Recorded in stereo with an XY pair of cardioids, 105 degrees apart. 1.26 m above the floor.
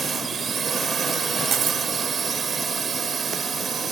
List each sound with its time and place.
0.0 s a drone: 45° right
1.5 s cutlery clinking: 60° right